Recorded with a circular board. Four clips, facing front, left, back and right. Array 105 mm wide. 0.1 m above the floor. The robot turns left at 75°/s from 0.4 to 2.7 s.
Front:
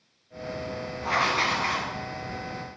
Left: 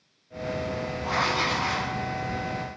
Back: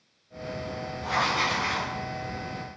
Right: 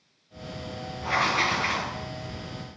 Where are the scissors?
I don't hear scissors.